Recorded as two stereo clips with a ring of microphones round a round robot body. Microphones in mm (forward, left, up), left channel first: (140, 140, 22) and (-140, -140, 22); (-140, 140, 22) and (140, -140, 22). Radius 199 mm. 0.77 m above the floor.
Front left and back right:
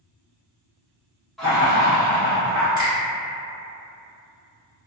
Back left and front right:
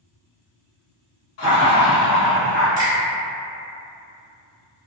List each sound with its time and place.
1.4 s laughter: 135° left, 0.8 m; by 2.7 s 50° left, 1.1 m
2.8 s a finger snap: 145° left, 1.5 m